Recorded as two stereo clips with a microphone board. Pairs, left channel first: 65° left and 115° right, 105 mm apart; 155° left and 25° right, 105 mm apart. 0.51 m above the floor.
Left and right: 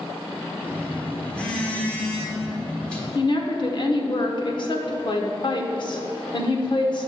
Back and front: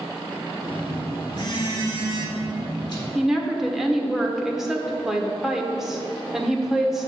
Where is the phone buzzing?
140° left, 1.5 m.